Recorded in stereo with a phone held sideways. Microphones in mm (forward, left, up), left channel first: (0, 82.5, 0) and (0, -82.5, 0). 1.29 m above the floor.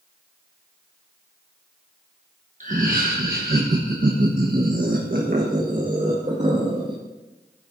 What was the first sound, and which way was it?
Laughter, 50° right (ahead or behind).